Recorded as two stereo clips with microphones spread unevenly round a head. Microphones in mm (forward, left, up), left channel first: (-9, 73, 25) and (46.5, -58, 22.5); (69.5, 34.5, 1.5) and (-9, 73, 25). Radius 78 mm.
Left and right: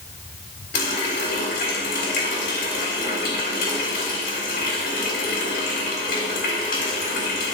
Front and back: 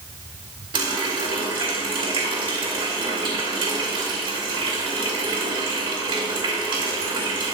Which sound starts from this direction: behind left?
A running tap, at 0.7 s.